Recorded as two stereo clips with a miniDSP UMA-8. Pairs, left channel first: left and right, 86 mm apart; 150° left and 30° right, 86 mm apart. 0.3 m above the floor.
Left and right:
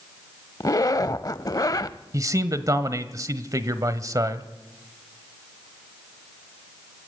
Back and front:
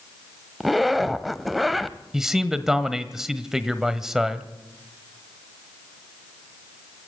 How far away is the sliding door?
I don't hear a sliding door.